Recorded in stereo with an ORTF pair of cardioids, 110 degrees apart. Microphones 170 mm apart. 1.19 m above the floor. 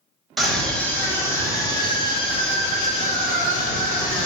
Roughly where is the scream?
Ahead.